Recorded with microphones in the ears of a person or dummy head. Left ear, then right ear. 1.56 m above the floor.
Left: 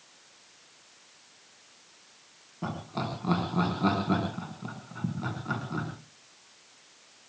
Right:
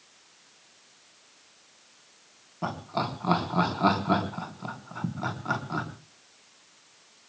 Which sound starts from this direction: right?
Laughter, at 2.6 s.